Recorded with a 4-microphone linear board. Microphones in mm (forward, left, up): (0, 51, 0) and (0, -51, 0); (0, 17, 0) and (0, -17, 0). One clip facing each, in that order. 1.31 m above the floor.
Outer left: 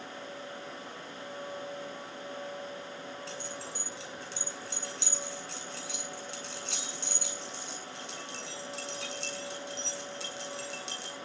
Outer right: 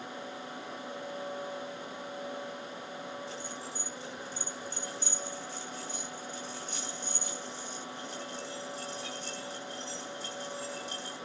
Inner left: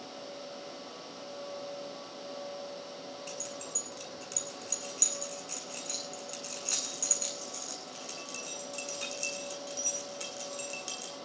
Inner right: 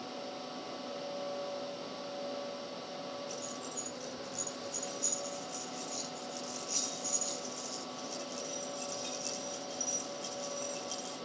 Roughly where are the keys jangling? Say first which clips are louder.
Even, even; left.